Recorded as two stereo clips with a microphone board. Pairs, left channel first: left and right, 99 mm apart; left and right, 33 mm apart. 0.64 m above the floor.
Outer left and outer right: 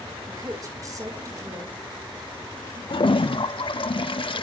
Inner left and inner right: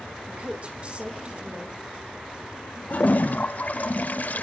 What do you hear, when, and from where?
0.3 s a woman speaking: 35° right (ahead or behind), 5 m
2.9 s a toilet flushing: 60° left (ahead or behind), 0.8 m